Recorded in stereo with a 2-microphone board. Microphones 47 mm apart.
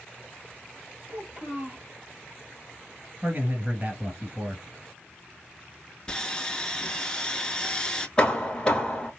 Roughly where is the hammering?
Centre.